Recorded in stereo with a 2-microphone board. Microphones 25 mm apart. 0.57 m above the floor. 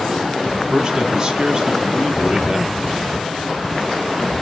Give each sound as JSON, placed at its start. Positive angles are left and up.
{"t": 0.5, "sound": "a man speaking", "side_deg": -35, "distance_m": 1.1}